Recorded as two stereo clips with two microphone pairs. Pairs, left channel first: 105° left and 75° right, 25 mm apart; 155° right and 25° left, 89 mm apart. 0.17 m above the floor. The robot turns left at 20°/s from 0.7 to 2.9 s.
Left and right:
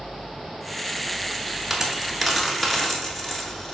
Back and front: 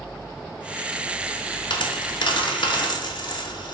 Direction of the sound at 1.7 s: 155° right.